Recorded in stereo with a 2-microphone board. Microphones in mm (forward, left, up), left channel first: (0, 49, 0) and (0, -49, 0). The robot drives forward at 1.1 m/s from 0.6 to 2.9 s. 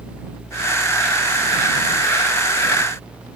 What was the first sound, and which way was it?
Only background noise.